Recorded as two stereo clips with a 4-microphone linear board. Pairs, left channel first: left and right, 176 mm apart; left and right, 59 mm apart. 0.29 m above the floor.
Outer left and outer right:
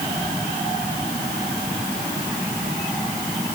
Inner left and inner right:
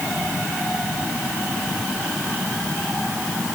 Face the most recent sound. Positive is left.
No sound to turn to.